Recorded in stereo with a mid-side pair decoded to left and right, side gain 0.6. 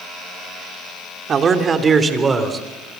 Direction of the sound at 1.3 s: 40° right.